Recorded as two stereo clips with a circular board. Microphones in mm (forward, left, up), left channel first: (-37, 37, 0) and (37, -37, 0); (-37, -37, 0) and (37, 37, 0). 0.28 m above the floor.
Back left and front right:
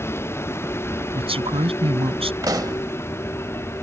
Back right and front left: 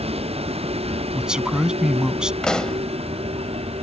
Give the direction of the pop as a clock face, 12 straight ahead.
2 o'clock.